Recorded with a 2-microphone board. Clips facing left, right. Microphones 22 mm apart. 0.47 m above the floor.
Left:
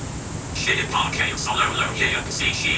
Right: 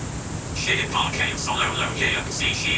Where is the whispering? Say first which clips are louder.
Left 1 dB; 35° left (ahead or behind), 1.6 m.